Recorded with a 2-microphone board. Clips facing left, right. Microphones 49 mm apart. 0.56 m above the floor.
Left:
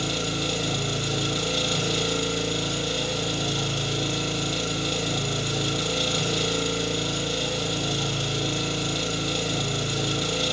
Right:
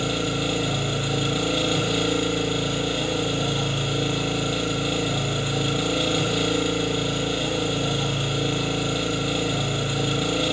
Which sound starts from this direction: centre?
An engine running, at 0.0 s.